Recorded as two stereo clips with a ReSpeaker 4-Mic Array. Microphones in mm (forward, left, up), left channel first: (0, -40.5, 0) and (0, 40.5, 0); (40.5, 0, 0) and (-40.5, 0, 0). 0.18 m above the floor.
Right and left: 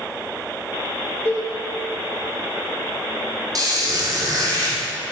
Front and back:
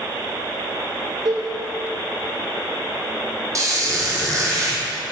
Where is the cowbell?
155° right, 2.5 m.